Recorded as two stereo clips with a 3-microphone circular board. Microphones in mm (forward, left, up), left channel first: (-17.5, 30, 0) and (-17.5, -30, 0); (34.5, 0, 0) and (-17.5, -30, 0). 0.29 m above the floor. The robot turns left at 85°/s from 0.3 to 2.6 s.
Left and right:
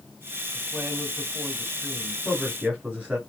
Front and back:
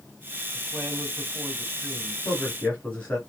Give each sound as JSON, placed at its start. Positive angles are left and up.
{"t": 0.5, "sound": "a man speaking", "azimuth_deg": -120, "distance_m": 2.0}
{"t": 2.2, "sound": "a man speaking", "azimuth_deg": 10, "distance_m": 2.0}